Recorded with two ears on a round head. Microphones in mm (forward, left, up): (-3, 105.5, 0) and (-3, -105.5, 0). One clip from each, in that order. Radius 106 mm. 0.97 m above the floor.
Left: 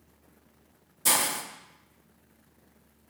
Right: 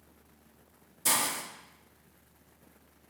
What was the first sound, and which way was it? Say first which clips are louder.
A hiss: left 3 dB; 5° left (ahead or behind).